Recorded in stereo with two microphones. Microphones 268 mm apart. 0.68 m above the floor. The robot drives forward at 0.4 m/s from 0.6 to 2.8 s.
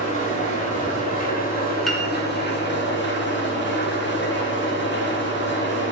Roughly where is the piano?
Centre.